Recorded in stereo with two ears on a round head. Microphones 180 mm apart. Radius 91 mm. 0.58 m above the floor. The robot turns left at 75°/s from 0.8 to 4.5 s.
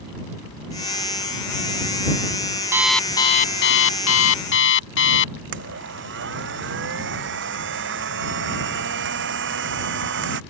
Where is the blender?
60° right (ahead or behind).